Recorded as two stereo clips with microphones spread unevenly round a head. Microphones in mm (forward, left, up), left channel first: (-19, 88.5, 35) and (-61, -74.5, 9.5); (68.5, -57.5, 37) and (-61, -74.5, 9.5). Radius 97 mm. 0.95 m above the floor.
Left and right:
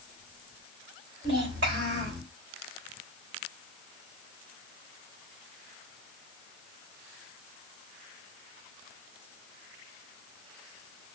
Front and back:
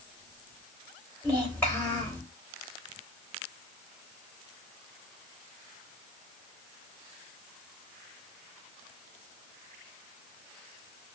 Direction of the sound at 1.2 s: 70° right.